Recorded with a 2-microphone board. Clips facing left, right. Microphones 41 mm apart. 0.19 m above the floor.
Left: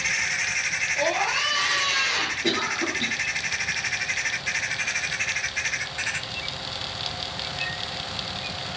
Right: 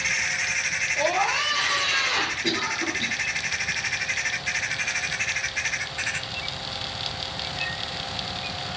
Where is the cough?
20° left (ahead or behind), 3 m.